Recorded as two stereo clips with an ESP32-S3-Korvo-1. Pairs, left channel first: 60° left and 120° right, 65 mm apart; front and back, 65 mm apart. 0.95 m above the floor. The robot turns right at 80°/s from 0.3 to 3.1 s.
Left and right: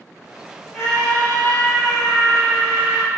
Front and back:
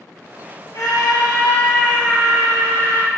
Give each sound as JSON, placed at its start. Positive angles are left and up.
{"t": 0.7, "sound": "a scream", "azimuth_deg": -40, "distance_m": 3.5}